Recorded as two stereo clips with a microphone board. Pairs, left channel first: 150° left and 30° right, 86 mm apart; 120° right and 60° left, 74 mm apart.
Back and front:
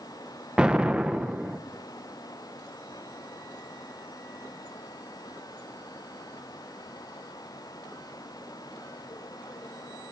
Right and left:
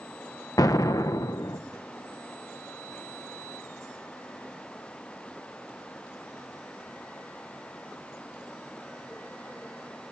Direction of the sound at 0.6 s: 105° right.